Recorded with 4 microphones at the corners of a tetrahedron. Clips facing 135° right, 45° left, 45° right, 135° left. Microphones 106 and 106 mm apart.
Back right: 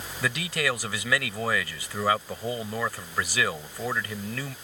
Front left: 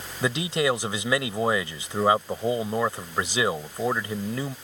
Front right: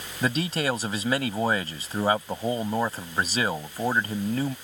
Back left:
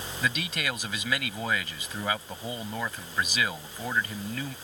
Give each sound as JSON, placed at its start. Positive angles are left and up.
{"t": 0.2, "sound": "a man speaking", "azimuth_deg": -10}